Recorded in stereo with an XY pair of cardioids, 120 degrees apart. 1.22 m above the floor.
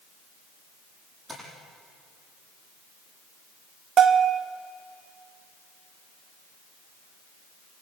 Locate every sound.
1.3 s tapping: 20° right, 9.5 m
4.0 s a bell: 45° right, 1.7 m